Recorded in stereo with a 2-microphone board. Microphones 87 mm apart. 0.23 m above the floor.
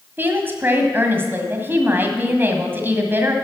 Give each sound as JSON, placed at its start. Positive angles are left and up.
{"t": 0.2, "sound": "a woman speaking", "side_deg": -25, "distance_m": 1.6}